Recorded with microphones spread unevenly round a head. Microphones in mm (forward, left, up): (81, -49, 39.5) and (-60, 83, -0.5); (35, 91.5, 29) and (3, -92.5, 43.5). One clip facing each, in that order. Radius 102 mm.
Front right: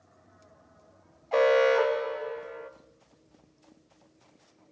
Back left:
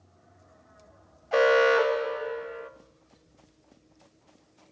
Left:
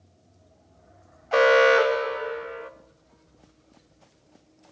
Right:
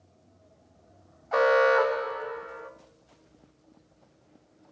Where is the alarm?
75° left, 0.6 m.